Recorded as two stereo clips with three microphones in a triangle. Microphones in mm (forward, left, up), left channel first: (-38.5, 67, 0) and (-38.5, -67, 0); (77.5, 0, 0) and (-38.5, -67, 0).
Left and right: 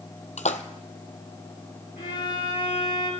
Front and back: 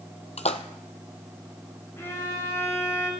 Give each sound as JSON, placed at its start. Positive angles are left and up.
{"t": 0.4, "sound": "a splash", "azimuth_deg": 65, "distance_m": 0.8}
{"t": 2.0, "sound": "a violin", "azimuth_deg": 100, "distance_m": 4.0}